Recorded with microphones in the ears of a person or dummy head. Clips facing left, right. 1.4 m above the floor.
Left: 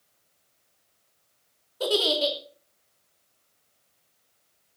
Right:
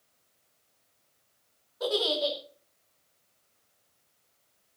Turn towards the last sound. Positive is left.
turn(degrees=45)  # may be behind; listen again after turning